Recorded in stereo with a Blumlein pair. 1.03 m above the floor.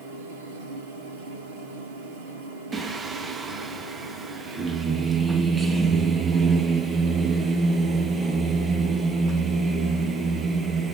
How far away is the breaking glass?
No breaking glass in this recording.